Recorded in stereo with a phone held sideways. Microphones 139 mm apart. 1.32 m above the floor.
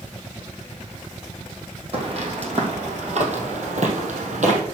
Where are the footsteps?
45° right (ahead or behind), 3 m; by 4.6 s 60° right (ahead or behind), 2.5 m.